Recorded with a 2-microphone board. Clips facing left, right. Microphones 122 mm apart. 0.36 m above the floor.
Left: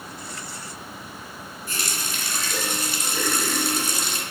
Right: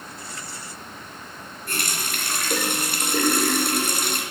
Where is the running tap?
60° right (ahead or behind), 2.5 m.